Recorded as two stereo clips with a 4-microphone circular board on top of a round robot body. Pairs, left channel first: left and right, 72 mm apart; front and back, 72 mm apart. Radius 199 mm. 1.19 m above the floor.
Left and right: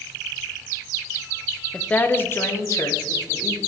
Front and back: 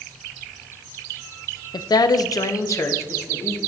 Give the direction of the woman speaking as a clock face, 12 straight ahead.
12 o'clock.